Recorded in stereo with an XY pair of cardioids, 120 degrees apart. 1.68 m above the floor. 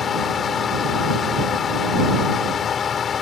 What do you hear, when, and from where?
0.0 s a fan: 45° left